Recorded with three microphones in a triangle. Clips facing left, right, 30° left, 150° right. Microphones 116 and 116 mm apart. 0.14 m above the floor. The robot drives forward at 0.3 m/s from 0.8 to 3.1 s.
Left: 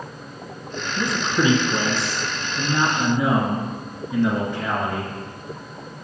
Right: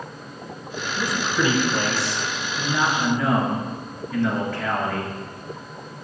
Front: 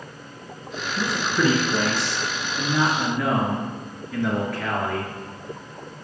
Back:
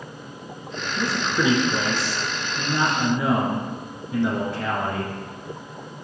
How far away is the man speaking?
About 1.4 m.